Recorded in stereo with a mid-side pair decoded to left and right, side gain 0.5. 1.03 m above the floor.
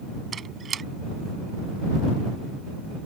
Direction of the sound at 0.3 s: 40° right.